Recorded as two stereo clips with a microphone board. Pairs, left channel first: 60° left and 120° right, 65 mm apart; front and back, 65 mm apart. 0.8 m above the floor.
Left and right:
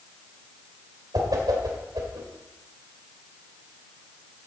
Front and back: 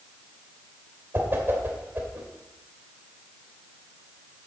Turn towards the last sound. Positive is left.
turn(degrees=-125)